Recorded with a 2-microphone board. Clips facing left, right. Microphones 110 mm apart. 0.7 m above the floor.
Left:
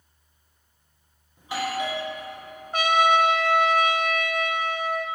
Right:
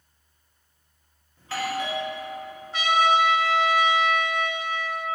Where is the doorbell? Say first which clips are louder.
Left 1 dB; 15° left (ahead or behind), 1.2 m.